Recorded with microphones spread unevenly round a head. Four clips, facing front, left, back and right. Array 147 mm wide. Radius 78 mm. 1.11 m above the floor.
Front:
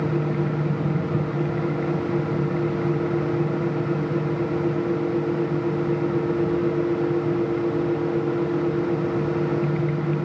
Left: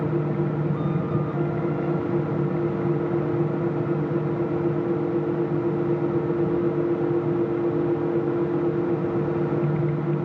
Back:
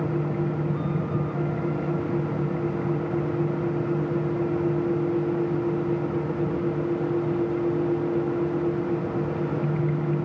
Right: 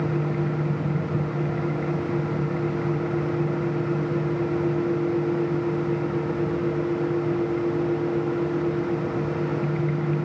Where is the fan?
45° left, 1.5 m.